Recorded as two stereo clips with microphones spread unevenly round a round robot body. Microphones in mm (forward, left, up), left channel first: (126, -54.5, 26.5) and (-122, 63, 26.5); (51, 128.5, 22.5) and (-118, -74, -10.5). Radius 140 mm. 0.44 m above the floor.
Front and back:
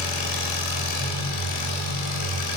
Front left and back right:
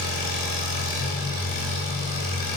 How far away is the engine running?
About 1.6 m.